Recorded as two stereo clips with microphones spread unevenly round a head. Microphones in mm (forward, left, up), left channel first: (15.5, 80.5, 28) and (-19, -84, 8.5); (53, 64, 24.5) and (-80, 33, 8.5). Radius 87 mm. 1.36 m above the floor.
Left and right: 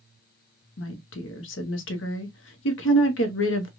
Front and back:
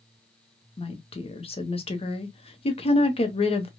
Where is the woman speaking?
60° left, 0.8 m.